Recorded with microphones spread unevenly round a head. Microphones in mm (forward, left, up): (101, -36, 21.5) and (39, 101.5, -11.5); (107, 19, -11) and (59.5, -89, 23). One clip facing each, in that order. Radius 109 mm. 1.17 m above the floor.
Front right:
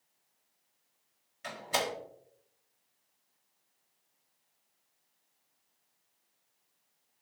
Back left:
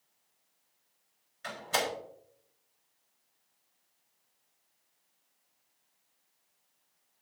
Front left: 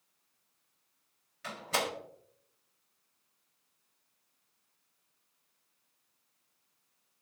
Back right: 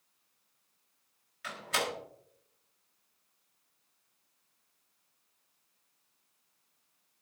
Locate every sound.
1.4 s a door slam: 10° left, 4 m